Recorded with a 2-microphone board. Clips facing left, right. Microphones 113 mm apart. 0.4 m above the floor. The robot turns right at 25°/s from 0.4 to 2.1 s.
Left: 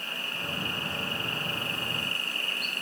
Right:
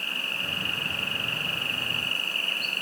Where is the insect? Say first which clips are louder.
Right 1 dB; 100° right, 0.8 m; by 2.8 s 60° right, 0.8 m.